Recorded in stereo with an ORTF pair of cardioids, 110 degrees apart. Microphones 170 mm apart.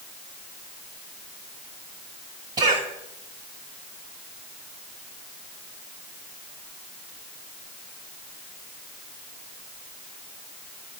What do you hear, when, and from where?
2.6 s a cough: 50° right, 1.9 m